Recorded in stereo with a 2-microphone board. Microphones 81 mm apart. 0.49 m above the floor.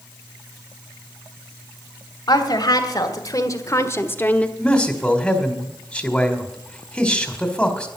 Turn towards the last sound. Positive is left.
turn(degrees=10)  # may be behind; listen again after turning